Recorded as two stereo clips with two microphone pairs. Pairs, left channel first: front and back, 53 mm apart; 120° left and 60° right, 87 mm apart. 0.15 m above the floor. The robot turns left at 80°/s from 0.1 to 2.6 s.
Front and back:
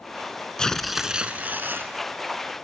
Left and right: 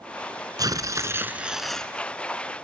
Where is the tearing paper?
65° right, 1.2 m; by 1.9 s 170° right, 1.2 m.